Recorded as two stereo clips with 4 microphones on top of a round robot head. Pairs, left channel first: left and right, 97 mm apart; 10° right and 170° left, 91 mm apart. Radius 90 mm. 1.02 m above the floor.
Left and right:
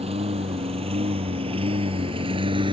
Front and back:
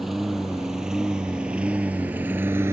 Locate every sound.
0.0 s a lawn mower: 100° right; by 2.8 s 120° right